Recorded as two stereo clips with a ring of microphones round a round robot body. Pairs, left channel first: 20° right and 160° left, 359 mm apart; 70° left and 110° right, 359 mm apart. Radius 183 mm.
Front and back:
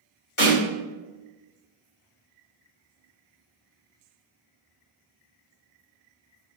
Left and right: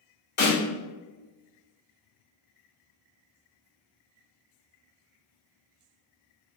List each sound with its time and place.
0.4 s a snare drum: 10° left, 2.0 m